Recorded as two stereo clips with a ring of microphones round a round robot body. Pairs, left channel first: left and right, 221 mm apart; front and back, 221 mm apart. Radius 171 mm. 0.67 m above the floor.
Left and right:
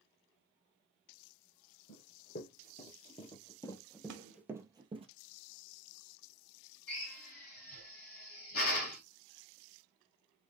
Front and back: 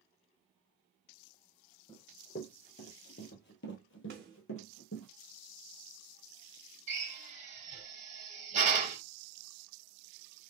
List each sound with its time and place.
1.9 s running footsteps: 55° left, 1.7 m; by 5.1 s 30° right, 1.1 m
4.1 s a snare drum: 120° right, 0.6 m
6.9 s a drill: 125° left, 2 m